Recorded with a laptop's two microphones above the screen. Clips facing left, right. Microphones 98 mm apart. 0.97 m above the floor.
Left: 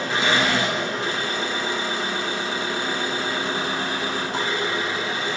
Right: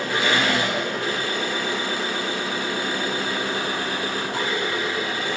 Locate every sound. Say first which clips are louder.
0.0 s an engine running: even; 25° left (ahead or behind), 4.5 m